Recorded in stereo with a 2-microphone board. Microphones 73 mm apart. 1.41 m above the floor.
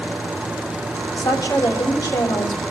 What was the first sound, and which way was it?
A woman speaking, 75° left (ahead or behind).